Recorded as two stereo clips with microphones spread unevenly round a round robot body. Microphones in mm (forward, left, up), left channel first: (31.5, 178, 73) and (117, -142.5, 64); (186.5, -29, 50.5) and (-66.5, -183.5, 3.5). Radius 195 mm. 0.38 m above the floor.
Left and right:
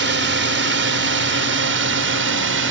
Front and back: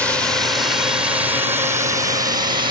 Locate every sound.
0.0 s a drone: 65° right; by 2.7 s 95° right